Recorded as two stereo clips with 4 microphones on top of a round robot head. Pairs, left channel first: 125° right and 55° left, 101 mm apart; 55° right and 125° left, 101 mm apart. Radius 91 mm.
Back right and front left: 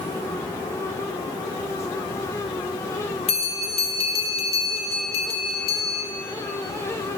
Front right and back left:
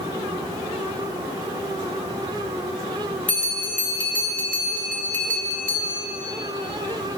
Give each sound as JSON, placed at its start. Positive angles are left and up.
{"t": 3.3, "sound": "a bell", "azimuth_deg": -130, "distance_m": 1.7}